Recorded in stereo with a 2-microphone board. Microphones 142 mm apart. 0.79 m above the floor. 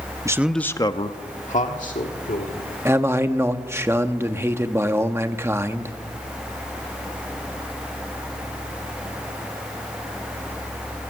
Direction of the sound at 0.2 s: 20° right (ahead or behind).